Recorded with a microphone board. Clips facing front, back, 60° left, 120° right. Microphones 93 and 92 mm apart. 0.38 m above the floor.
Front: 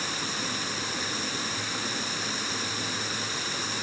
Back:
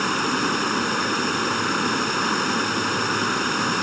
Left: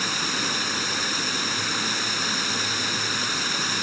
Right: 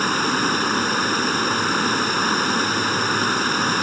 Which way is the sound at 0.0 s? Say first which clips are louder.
Back 11 dB, right 8 dB; 160° right.